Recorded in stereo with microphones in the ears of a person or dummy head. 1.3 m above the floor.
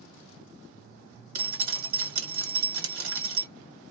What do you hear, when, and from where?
1.4 s dripping: 90° right, 1.5 m